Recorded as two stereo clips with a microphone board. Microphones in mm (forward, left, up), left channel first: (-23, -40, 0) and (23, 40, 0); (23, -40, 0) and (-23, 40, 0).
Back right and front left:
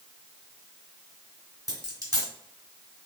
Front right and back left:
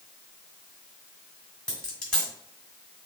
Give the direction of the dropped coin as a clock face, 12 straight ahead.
11 o'clock.